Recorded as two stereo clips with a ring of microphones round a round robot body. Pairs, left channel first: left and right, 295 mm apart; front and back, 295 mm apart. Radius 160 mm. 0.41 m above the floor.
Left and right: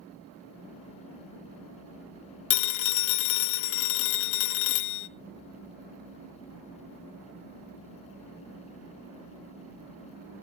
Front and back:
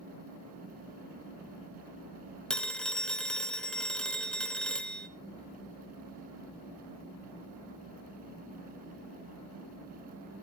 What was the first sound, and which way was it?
A phone ringing, 85° left.